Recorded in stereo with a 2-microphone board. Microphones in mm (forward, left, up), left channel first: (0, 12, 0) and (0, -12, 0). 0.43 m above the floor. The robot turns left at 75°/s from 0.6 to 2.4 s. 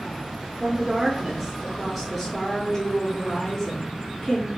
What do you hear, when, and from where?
0.6 s a woman speaking: 25° right (ahead or behind), 0.8 m; by 4.5 s 15° left (ahead or behind), 0.8 m